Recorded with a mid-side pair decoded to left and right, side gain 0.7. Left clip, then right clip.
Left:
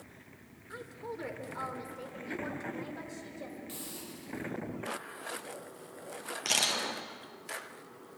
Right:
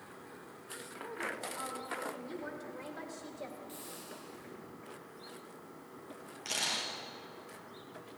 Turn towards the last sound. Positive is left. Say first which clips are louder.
# left 5 dB
turn(degrees=40)